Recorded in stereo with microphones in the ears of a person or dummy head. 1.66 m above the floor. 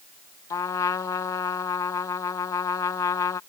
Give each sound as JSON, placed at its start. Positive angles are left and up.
{"t": 0.5, "sound": "a trumpet", "side_deg": 20}